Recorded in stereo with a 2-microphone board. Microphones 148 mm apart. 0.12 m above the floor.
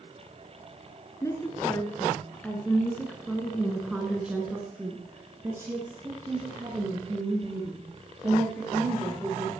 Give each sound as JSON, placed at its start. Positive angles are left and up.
{"t": 1.2, "sound": "a woman speaking", "side_deg": 20, "distance_m": 2.0}